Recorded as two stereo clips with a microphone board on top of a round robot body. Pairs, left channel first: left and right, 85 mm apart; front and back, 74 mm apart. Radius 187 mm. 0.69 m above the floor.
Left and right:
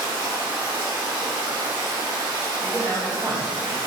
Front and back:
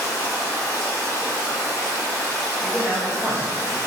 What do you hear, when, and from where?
0.0 s running water: 60° right, 1.8 m
2.6 s a man speaking: 120° right, 1.4 m